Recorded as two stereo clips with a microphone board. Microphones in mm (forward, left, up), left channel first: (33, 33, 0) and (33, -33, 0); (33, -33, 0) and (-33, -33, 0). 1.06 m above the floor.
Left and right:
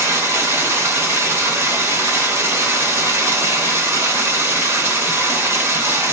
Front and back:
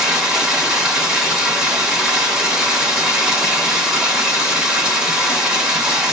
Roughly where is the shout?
I don't hear a shout.